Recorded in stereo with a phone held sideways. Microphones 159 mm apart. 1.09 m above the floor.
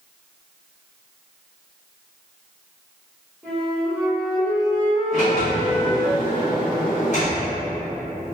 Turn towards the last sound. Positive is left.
turn(degrees=55)  # may be behind; listen again after turning